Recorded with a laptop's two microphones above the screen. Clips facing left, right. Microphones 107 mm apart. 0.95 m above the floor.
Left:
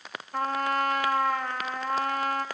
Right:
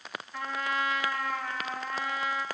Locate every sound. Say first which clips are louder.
0.3 s a trumpet: left 6 dB; 55° left (ahead or behind), 1.1 m